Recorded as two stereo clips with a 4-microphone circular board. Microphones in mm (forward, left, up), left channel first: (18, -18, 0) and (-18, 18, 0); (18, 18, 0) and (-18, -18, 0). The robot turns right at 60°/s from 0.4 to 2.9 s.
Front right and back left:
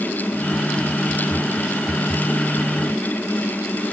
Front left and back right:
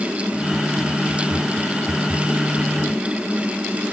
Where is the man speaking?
No man speaking in this recording.